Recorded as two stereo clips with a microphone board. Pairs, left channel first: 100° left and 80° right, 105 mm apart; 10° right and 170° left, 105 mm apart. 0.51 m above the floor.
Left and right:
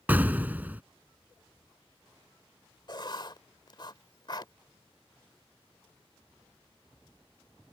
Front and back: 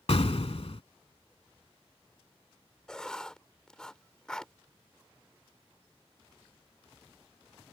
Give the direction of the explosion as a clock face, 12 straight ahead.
12 o'clock.